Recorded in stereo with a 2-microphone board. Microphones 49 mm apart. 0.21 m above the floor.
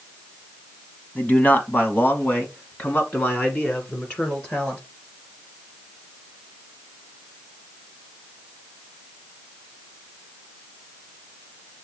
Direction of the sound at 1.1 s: 35° left (ahead or behind).